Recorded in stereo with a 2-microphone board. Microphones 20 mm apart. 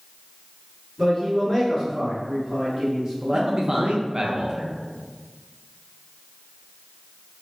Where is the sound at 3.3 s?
40° right (ahead or behind), 0.8 m.